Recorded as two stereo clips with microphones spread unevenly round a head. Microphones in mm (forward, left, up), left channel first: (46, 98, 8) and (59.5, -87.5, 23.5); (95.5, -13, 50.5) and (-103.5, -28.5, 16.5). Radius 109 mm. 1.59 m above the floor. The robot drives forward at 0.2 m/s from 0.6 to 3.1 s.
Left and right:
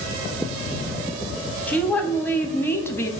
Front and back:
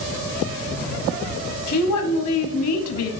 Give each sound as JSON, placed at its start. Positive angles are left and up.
{"t": 1.7, "sound": "a woman speaking", "azimuth_deg": 10, "distance_m": 0.9}